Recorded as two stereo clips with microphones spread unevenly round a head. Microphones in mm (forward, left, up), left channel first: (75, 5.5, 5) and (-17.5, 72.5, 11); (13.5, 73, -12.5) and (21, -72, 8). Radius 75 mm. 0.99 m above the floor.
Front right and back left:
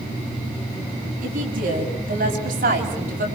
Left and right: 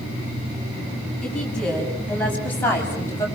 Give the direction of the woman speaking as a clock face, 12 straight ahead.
6 o'clock.